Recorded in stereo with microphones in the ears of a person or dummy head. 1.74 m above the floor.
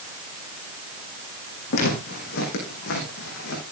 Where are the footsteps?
55° left (ahead or behind), 6 m; by 3.6 s 65° left (ahead or behind), 7 m.